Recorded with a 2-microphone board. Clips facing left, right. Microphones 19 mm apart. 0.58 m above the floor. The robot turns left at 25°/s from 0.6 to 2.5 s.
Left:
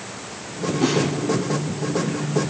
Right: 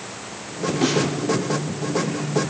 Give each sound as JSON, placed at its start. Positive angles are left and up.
{"t": 0.8, "sound": "a snare drum", "side_deg": -50, "distance_m": 5.5}